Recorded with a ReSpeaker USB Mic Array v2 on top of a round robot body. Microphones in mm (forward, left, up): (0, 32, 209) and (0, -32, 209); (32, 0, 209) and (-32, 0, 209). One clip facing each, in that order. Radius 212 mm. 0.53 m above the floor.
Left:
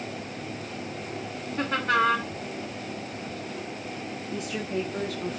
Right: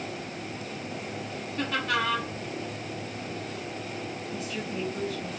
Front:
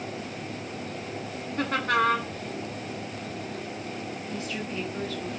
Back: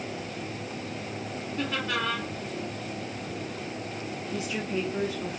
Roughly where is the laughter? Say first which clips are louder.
Left 4 dB, front 6 dB; ahead left.